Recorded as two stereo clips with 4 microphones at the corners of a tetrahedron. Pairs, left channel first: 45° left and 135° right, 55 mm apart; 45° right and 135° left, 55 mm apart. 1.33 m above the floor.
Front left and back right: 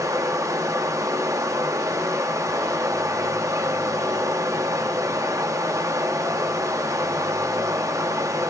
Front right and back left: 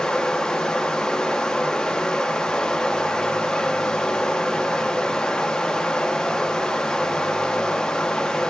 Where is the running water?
120° right, 0.9 m.